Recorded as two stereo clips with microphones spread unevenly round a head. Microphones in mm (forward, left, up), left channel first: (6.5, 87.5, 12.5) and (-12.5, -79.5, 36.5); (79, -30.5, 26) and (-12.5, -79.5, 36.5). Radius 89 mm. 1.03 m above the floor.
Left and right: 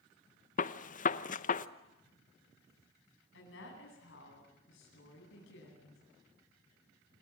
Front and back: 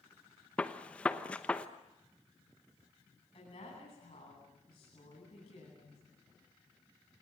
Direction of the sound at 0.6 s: 105° left.